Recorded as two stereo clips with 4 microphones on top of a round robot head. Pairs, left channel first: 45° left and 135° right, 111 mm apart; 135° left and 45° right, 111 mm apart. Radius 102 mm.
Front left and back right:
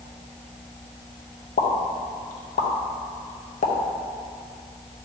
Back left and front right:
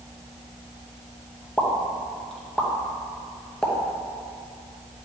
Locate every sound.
1.6 s a pop: 55° left, 0.8 m